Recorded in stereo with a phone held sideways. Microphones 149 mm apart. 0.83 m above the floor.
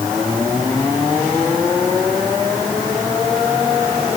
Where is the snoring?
I don't hear snoring.